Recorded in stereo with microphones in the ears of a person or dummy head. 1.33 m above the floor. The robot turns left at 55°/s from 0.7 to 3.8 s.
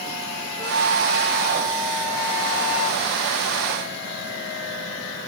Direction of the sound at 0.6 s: 135° right.